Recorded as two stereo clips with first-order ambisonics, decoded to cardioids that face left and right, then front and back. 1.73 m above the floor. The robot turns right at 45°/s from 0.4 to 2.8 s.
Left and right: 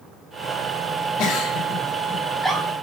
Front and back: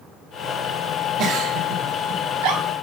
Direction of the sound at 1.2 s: 125° left.